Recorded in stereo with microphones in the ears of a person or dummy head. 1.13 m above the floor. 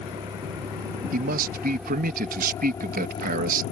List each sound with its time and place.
0.0 s a vehicle: 20° right (ahead or behind); by 3.7 s 45° left (ahead or behind)
1.1 s a man speaking: 45° right (ahead or behind)